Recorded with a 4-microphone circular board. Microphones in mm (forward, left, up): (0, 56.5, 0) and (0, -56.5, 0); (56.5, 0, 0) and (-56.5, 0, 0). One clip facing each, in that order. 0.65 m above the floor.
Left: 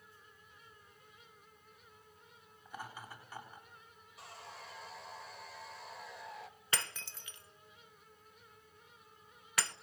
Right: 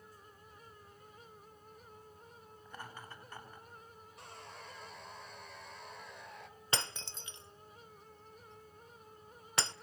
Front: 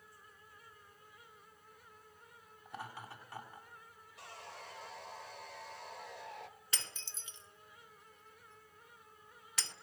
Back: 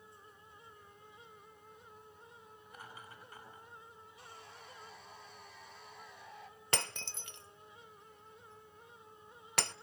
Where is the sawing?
5° left, 1.6 m.